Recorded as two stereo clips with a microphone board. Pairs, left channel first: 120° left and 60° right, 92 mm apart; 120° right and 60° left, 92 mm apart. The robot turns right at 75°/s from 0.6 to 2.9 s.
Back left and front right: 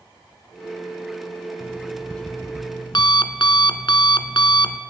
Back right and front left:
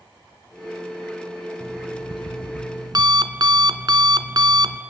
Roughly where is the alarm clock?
Ahead.